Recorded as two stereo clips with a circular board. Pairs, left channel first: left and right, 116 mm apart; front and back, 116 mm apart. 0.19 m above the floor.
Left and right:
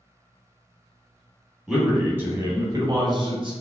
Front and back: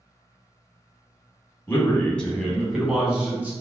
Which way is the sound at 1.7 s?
10° right.